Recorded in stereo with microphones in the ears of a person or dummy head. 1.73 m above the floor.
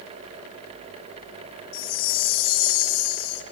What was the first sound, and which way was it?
A chime, 75° left (ahead or behind).